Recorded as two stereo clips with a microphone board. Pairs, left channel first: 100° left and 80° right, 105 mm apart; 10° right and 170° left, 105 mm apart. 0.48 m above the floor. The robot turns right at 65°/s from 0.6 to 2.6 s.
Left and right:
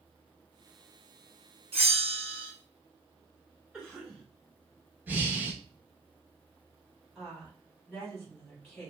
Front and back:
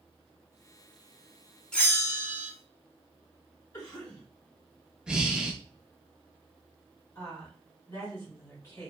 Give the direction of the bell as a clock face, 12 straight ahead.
3 o'clock.